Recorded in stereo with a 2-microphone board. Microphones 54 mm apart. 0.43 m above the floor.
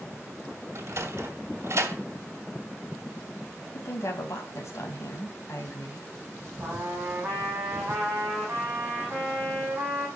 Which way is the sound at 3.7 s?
70° left (ahead or behind).